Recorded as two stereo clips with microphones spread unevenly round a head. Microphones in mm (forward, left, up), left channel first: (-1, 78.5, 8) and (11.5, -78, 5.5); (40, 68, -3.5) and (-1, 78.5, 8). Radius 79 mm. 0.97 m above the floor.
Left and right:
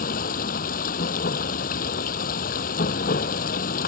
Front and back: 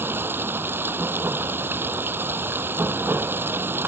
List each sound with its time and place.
0.0 s running water: 135° left